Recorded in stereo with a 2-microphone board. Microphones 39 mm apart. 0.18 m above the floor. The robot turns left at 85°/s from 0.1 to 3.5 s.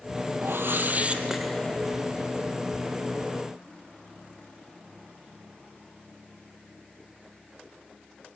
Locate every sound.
0.4 s a whoosh: 90° right, 1.5 m; by 1.8 s 150° left, 1.5 m